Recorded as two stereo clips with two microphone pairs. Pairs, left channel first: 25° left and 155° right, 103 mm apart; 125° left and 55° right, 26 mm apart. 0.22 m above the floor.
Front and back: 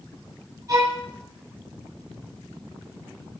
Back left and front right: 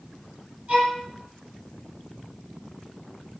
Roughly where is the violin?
Right.